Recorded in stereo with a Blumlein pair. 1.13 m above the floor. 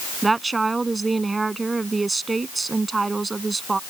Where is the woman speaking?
10° right.